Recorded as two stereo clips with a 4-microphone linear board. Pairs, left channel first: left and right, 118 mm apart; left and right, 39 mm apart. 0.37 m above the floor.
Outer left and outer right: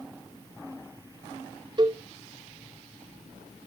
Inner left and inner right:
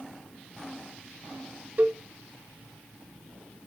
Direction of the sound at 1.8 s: 40° right (ahead or behind).